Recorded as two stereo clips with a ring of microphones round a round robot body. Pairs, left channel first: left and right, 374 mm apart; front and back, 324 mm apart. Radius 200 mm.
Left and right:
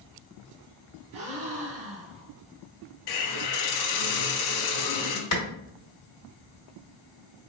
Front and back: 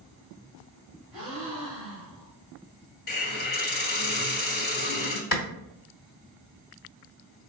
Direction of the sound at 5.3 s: 45° left.